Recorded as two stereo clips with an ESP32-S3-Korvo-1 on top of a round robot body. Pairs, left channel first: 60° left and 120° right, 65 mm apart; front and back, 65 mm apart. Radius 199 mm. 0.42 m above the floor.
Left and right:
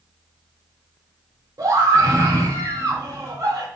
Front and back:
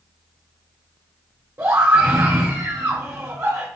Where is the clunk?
I don't hear a clunk.